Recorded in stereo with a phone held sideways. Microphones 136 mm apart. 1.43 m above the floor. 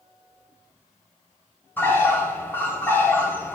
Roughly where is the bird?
Centre.